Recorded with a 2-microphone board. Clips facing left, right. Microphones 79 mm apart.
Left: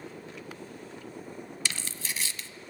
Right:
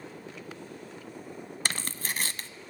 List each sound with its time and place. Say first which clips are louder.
1.6 s tearing paper: right 4 dB; 45° right (ahead or behind), 1.2 m